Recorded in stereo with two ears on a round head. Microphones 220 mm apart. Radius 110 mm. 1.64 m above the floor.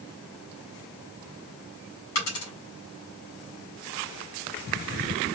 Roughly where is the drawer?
No drawer in this recording.